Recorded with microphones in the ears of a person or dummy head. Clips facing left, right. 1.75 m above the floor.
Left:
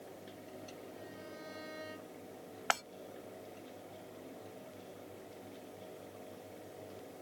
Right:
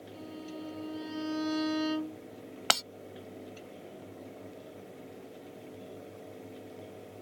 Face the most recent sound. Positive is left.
turn(degrees=-55)  # may be behind; listen again after turning